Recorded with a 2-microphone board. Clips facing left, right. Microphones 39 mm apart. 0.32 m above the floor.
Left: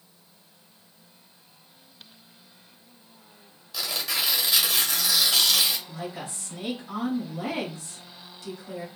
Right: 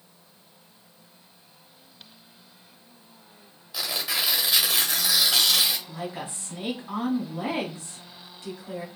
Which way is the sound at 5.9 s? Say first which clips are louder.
Right 1 dB; 30° right (ahead or behind).